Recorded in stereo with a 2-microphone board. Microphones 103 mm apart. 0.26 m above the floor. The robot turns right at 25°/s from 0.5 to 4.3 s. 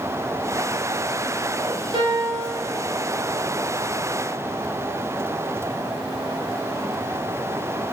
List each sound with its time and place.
1.9 s a piano: 55° right (ahead or behind), 2.5 m; by 2.5 s 40° right (ahead or behind), 2.5 m